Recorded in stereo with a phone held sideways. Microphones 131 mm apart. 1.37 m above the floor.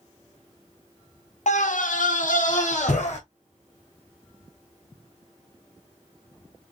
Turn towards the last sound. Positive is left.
turn(degrees=60)  # may be behind; listen again after turning